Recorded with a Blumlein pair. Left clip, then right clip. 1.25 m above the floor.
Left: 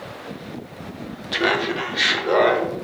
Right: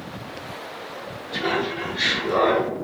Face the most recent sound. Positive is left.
turn(degrees=45)